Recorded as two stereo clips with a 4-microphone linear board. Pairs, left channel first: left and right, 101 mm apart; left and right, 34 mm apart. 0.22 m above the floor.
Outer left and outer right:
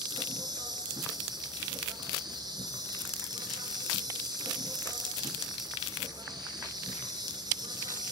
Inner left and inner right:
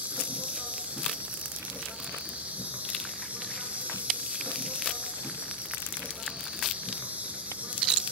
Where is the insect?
40° right (ahead or behind), 2.5 m.